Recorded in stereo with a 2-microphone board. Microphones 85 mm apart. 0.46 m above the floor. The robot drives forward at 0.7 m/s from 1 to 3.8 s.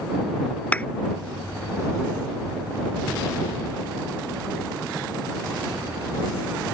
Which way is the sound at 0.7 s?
20° left (ahead or behind).